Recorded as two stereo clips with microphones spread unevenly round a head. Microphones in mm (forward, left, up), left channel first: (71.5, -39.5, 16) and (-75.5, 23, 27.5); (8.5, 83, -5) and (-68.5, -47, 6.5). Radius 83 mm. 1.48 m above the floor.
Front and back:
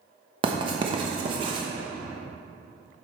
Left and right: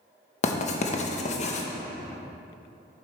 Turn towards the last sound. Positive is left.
turn(degrees=100)